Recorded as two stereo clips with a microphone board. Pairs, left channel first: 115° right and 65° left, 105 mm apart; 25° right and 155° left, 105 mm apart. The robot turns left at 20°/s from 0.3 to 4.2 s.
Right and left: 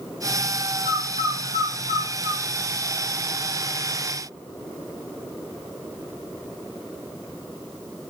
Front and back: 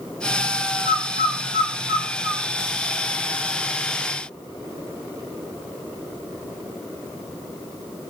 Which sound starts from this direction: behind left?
A bird, at 0.8 s.